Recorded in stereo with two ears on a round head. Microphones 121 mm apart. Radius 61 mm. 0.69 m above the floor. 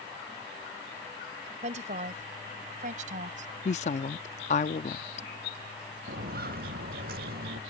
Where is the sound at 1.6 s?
55° right (ahead or behind); by 3.5 s 60° right (ahead or behind).